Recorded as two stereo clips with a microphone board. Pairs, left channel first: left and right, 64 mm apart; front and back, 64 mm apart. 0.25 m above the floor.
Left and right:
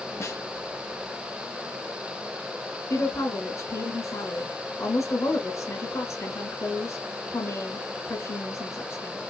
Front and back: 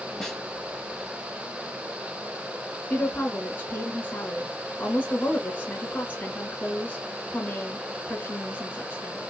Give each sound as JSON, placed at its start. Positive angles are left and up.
{"t": 0.2, "sound": "a snare drum", "azimuth_deg": 80, "distance_m": 1.6}
{"t": 2.9, "sound": "a woman speaking", "azimuth_deg": 60, "distance_m": 2.5}